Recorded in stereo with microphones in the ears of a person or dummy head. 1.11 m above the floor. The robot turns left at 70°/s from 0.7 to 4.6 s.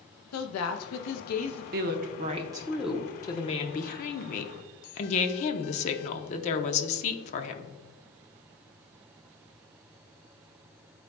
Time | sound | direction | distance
0.3 | a woman speaking | 95° left | 0.7 m
1.7 | a woman speaking | 100° right | 0.8 m